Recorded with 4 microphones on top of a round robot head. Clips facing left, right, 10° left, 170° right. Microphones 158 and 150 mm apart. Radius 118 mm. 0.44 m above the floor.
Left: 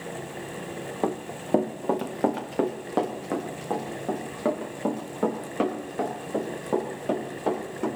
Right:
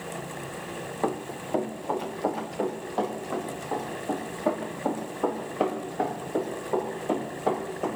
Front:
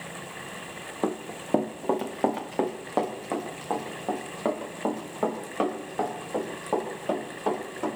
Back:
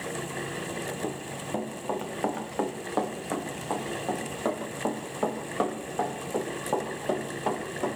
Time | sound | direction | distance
1.0 | running footsteps | 25° left | 1.7 m